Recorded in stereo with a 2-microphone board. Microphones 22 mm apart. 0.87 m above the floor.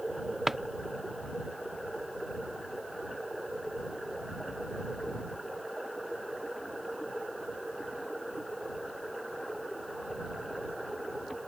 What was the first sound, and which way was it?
A drawer, 10° right (ahead or behind).